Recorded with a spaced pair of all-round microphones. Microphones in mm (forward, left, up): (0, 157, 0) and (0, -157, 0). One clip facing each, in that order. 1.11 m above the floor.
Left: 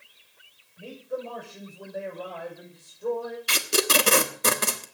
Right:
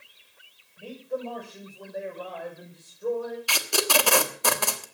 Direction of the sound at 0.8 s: 5° left (ahead or behind).